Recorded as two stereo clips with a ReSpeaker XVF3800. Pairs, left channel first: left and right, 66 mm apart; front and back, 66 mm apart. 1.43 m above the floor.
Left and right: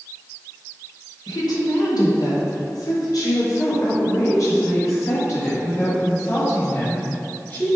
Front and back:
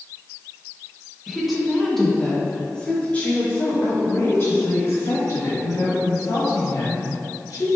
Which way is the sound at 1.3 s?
95° left.